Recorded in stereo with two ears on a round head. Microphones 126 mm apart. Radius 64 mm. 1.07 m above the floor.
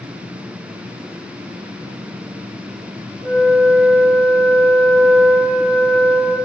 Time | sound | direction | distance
3.2 | a flute | 65° right (ahead or behind) | 1.3 m